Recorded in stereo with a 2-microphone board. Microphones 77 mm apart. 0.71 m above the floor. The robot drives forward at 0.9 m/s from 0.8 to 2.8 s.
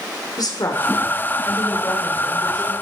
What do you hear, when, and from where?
0.4 s a woman speaking: 60° left (ahead or behind), 3 m; by 2.7 s 40° left (ahead or behind), 3.5 m